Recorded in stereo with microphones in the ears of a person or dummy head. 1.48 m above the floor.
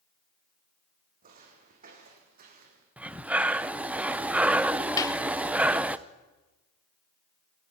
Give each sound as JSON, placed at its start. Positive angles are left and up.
{"t": 1.2, "sound": "footsteps", "side_deg": -40, "distance_m": 5.5}
{"t": 3.0, "sound": "breathing", "side_deg": -5, "distance_m": 0.5}
{"t": 5.0, "sound": "a clap", "side_deg": 15, "distance_m": 0.9}